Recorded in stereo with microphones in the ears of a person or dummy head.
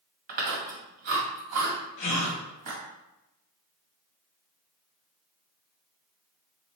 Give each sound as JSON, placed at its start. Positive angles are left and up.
{"t": 0.3, "sound": "chewing", "side_deg": -45, "distance_m": 1.9}
{"t": 2.0, "sound": "a gasp", "side_deg": 25, "distance_m": 0.8}